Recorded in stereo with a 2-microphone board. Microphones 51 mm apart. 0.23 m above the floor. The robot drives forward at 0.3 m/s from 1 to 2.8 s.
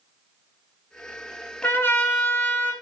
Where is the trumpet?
60° left (ahead or behind), 1.6 m; by 2.7 s 55° left (ahead or behind), 1.7 m.